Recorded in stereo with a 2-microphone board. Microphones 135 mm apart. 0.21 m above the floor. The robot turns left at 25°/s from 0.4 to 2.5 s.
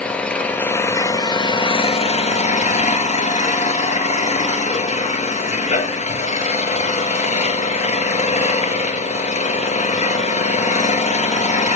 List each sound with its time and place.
0.0 s an engine running: 170° left, 0.8 m; by 11.8 s 120° left, 0.8 m